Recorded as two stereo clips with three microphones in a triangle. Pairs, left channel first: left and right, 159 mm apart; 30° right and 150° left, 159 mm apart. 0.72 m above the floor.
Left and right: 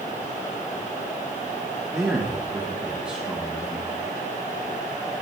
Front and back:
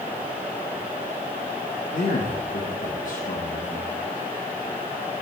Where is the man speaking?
5° right, 1.2 m.